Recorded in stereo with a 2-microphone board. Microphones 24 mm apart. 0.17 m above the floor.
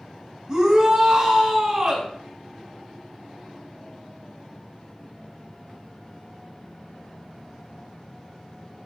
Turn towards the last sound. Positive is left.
turn(degrees=-30)  # may be behind; listen again after turning